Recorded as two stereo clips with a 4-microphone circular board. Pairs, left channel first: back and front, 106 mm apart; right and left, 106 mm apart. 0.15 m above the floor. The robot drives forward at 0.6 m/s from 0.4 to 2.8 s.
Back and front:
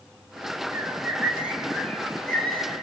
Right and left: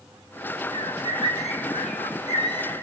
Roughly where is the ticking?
No ticking in this recording.